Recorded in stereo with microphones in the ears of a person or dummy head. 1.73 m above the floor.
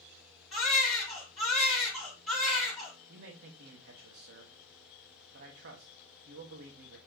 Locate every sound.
0.5 s a baby crying: 5° right (ahead or behind), 3 m
3.1 s a man speaking: 50° right (ahead or behind), 1.4 m